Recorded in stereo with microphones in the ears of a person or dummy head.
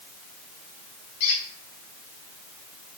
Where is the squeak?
60° left (ahead or behind), 5 m.